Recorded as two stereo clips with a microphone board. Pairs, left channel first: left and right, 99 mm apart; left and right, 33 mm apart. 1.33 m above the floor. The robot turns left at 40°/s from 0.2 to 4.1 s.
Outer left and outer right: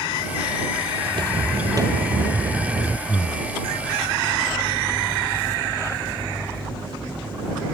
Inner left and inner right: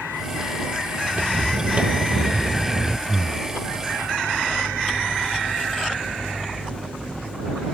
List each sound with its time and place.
1.1 s footsteps: 50° right (ahead or behind); by 3.0 s 30° right (ahead or behind)
3.1 s breathing: 15° left (ahead or behind); by 3.5 s centre (ahead or behind)